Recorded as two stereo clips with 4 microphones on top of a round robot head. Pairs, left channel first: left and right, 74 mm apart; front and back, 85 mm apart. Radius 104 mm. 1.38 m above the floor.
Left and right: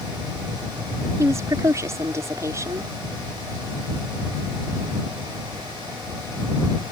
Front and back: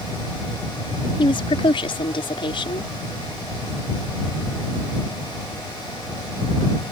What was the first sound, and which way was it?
A woman speaking, 35° right.